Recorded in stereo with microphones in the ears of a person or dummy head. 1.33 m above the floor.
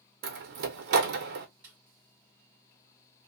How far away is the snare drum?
About 1.4 m.